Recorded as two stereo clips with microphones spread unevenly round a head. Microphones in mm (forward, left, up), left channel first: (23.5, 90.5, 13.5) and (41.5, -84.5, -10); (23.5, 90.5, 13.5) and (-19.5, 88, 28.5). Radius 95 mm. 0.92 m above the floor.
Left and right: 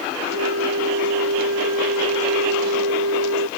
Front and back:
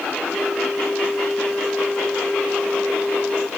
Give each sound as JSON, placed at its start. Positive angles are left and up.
{"t": 0.2, "sound": "a flute", "azimuth_deg": -90}